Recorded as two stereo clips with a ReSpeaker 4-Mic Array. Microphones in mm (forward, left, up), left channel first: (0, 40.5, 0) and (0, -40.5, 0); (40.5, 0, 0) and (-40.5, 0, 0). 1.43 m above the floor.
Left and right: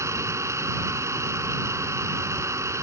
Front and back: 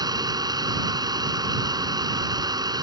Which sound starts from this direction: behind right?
An engine running, at 0.0 s.